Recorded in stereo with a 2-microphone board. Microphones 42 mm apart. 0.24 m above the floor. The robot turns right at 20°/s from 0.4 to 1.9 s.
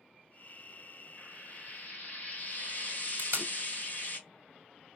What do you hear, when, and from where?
1.2 s frying: 45° left (ahead or behind), 2 m
3.2 s tape being pulled: 50° right (ahead or behind), 1.2 m